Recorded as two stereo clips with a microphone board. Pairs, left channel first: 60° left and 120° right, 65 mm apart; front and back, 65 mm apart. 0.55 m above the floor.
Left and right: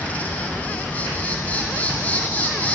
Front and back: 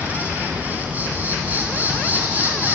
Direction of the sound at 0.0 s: 125° left.